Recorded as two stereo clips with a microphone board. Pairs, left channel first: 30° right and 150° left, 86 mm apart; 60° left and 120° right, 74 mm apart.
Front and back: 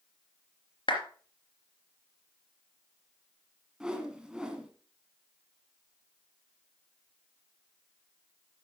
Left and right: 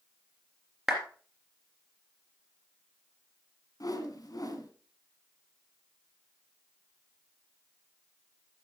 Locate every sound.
0.9 s a clap: 40° right, 3 m
3.8 s a whoosh: 70° left, 1.5 m